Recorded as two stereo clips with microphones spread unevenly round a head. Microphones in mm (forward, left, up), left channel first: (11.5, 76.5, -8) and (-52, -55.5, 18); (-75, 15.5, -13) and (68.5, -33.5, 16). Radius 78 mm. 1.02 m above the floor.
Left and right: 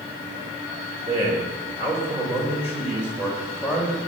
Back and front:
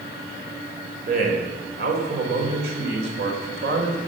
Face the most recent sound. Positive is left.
turn(degrees=-25)